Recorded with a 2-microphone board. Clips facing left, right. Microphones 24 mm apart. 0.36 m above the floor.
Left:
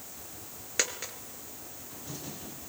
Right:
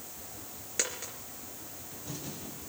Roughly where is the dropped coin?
Left.